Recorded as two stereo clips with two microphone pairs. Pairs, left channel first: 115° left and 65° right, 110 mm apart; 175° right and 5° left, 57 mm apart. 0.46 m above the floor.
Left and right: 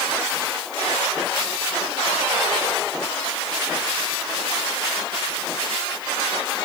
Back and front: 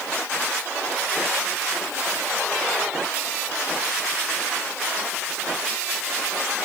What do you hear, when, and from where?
Only background noise.